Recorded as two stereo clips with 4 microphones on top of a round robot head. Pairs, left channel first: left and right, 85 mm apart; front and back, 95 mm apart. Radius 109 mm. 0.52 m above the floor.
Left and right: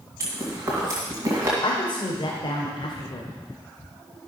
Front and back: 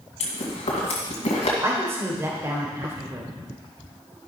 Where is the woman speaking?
120° left, 2 m.